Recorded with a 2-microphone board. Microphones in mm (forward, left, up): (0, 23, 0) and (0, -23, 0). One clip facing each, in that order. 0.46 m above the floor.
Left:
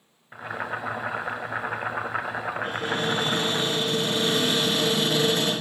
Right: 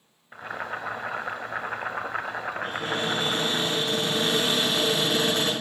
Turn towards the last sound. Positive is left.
turn(degrees=-75)  # may be behind; listen again after turning